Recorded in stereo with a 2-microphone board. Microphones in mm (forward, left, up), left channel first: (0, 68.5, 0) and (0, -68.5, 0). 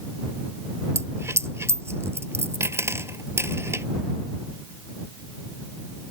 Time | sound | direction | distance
0.9 | a dropped coin | 20° right (ahead or behind) | ?